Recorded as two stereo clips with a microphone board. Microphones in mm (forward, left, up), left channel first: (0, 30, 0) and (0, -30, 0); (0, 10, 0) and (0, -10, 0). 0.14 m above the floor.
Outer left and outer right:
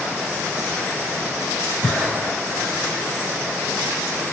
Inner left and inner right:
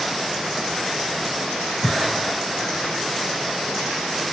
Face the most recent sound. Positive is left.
turn(degrees=15)  # may be behind; listen again after turning